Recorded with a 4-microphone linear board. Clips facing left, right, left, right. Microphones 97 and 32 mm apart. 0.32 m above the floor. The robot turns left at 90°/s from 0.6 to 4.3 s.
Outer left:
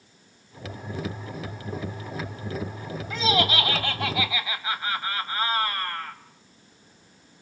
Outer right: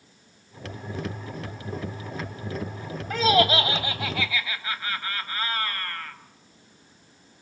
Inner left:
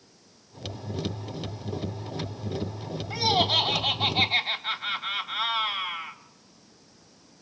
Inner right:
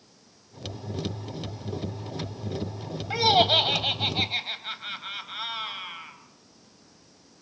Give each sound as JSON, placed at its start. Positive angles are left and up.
{"t": 3.1, "sound": "laughter", "azimuth_deg": -95, "distance_m": 2.0}